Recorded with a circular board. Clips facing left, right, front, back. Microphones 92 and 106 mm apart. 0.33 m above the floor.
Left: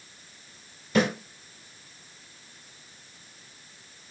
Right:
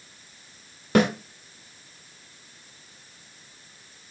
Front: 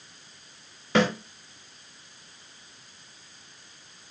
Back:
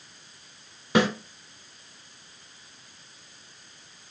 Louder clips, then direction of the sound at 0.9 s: Right 3 dB, even; 105° right.